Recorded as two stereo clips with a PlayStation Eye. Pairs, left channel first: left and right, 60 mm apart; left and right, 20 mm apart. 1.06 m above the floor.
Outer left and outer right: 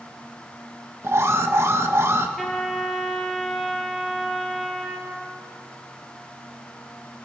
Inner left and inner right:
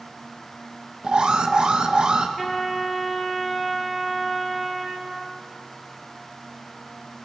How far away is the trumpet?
About 4 m.